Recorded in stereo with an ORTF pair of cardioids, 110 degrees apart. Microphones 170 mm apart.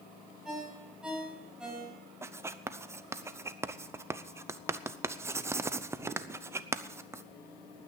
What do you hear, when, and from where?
0.5 s a ringtone: 5° right, 4.5 m
2.2 s writing: 15° right, 0.7 m